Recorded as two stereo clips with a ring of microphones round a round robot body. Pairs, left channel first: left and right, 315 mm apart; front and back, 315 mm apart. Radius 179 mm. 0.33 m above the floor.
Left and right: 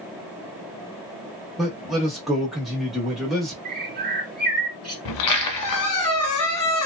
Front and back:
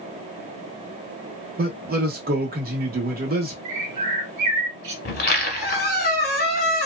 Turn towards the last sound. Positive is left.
turn(degrees=60)